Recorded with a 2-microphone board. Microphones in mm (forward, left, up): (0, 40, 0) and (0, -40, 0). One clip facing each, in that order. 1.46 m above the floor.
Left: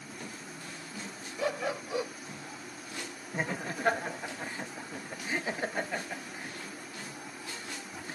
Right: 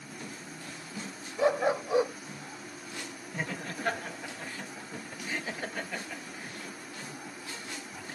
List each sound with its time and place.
1.4 s a dog barking: 25° right (ahead or behind)
3.3 s laughter: 25° left (ahead or behind)